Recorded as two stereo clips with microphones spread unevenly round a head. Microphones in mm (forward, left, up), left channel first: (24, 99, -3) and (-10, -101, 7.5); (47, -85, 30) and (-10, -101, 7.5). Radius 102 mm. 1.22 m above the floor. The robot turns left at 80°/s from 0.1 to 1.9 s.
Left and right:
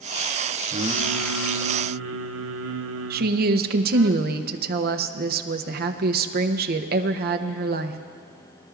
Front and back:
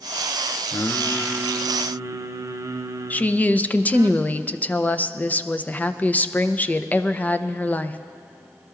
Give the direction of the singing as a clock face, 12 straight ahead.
1 o'clock.